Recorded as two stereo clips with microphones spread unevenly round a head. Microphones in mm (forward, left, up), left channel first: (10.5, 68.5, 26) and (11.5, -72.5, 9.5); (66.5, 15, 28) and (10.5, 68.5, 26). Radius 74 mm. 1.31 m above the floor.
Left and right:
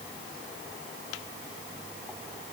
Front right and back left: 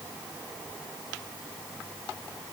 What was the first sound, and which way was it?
Only background noise.